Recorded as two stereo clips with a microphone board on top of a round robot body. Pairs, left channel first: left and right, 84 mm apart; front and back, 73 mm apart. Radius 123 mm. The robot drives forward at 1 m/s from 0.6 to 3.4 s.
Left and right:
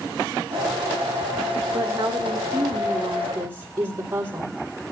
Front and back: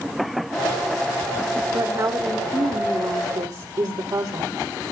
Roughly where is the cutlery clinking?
No cutlery clinking in this recording.